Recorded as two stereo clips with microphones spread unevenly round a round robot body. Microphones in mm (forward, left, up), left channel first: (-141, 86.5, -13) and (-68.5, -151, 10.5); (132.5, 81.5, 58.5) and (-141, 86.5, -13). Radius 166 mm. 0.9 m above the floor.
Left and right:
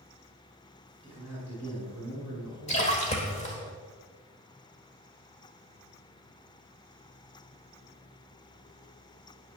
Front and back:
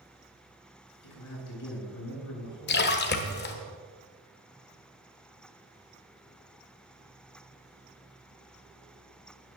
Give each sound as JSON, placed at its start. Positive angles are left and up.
{"t": 1.0, "sound": "a man speaking", "azimuth_deg": 25, "distance_m": 4.0}
{"t": 2.7, "sound": "a splash", "azimuth_deg": 35, "distance_m": 1.0}